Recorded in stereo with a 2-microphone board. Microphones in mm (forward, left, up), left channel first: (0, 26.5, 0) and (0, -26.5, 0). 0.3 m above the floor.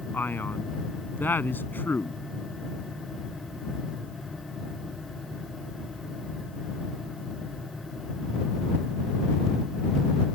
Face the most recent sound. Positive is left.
turn(degrees=40)  # may be behind; listen again after turning